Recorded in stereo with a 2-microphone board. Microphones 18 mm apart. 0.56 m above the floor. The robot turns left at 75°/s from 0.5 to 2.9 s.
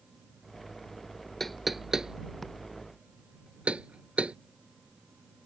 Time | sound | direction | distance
1.4 | knocking | 15° left (ahead or behind) | ?